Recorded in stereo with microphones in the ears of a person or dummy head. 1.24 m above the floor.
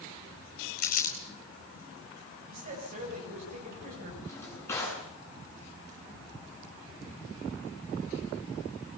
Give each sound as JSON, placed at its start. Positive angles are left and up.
{"t": 0.8, "sound": "crumpling", "side_deg": 55, "distance_m": 4.0}
{"t": 2.5, "sound": "a man speaking", "side_deg": -45, "distance_m": 9.5}
{"t": 4.2, "sound": "a drawer", "side_deg": 15, "distance_m": 9.0}